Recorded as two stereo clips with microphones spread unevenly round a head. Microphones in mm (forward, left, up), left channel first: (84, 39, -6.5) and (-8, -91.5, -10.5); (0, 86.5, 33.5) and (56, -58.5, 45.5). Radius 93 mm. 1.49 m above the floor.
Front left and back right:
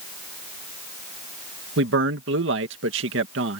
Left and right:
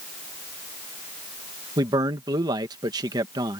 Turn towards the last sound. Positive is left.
turn(degrees=-140)